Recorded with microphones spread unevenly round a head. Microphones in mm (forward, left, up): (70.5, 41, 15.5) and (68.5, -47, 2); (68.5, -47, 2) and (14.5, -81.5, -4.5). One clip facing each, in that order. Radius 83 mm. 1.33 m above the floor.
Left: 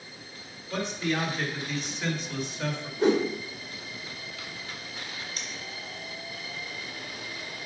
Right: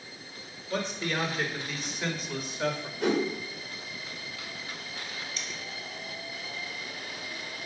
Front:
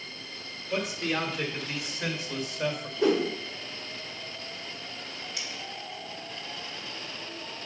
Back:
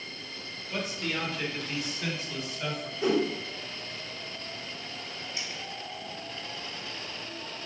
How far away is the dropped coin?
About 2.5 m.